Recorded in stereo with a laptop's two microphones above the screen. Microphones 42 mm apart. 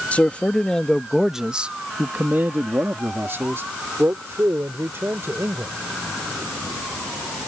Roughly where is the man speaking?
Left.